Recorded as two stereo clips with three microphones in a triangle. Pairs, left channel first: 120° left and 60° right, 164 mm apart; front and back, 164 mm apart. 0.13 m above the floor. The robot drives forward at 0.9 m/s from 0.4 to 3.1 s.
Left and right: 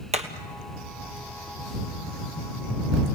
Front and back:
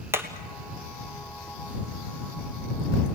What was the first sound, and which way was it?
Hammering, 105° right.